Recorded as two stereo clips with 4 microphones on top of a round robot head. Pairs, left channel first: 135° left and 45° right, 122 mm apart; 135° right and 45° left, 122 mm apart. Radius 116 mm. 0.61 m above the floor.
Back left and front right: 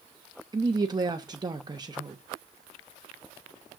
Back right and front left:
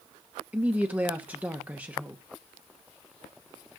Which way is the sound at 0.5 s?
25° right.